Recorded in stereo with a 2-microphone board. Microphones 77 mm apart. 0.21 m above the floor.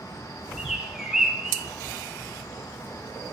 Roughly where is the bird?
Centre.